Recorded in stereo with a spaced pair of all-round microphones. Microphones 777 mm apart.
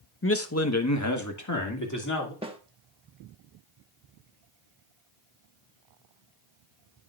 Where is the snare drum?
5° right (ahead or behind), 1.2 m.